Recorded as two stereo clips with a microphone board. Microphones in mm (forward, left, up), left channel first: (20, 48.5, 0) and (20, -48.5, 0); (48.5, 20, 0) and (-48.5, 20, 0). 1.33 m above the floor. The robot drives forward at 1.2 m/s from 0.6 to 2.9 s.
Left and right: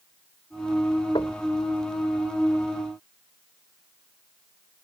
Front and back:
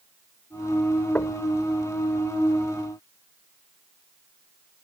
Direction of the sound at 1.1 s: 70° left.